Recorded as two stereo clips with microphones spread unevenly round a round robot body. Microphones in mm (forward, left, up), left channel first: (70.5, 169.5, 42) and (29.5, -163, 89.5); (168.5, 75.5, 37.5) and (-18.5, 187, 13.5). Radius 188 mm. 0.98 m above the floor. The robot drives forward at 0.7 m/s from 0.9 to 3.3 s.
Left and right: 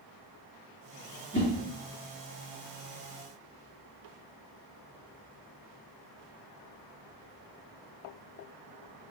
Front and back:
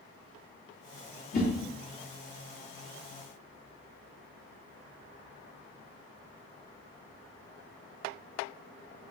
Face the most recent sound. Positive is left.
turn(degrees=75)